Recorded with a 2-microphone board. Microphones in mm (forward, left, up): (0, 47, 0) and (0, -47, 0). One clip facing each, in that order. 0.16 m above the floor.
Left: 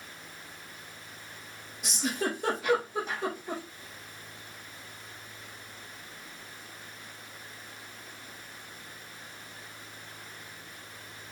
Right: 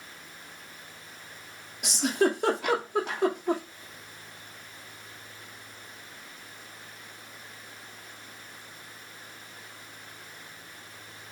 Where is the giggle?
65° right (ahead or behind), 2 m.